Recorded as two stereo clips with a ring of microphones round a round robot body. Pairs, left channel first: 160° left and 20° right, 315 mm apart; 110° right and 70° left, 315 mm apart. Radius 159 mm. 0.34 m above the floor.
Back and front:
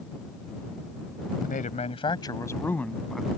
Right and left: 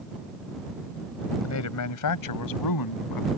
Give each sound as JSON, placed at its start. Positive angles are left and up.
{"t": 1.4, "sound": "a man speaking", "azimuth_deg": -145}